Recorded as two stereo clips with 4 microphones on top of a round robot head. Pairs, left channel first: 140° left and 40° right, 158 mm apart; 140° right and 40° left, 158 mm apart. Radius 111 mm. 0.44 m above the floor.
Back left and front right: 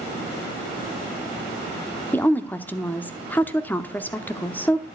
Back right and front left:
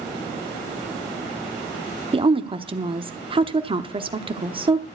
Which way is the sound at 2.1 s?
70° left.